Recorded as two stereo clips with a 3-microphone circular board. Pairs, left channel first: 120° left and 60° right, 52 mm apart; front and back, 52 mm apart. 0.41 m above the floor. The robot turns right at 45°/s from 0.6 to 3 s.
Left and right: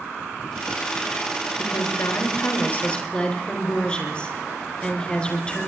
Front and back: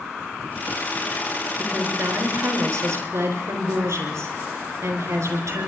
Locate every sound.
1.6 s a woman speaking: 125° left, 5 m; by 5.7 s 170° right, 5 m